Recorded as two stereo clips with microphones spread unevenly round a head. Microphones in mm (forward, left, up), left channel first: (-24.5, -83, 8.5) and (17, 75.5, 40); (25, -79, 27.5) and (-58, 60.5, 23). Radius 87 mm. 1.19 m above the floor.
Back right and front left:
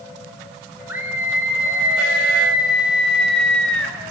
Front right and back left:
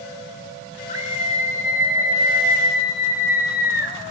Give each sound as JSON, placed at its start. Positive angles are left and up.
{"t": 0.9, "sound": "a scream", "azimuth_deg": -5, "distance_m": 7.0}